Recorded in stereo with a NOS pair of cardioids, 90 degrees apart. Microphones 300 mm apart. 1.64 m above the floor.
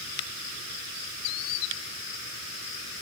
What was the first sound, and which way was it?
Only background noise.